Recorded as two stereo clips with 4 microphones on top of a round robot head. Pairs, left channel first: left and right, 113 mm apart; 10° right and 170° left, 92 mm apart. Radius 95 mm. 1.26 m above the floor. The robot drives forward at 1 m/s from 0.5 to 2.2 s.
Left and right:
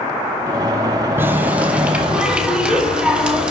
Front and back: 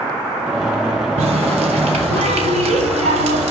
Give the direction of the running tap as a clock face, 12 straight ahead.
5 o'clock.